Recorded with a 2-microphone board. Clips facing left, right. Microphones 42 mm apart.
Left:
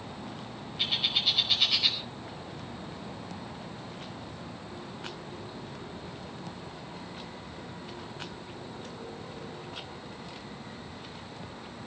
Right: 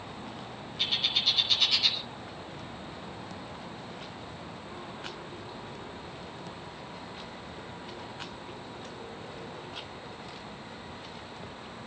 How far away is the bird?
About 5 m.